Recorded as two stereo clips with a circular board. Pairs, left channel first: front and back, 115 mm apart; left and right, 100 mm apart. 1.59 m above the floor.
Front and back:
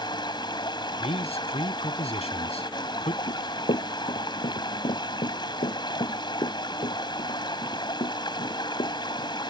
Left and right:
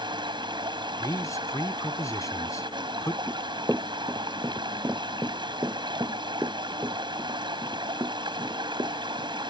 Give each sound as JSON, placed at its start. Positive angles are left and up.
{"t": 0.0, "sound": "running water", "azimuth_deg": -50}
{"t": 1.0, "sound": "a man speaking", "azimuth_deg": 30}
{"t": 3.3, "sound": "running footsteps", "azimuth_deg": -10}